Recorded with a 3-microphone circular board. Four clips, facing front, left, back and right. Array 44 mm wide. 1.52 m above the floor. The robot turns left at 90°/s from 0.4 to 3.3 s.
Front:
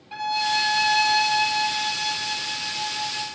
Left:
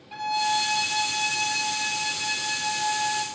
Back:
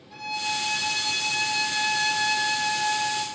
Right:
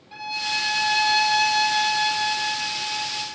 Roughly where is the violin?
Ahead.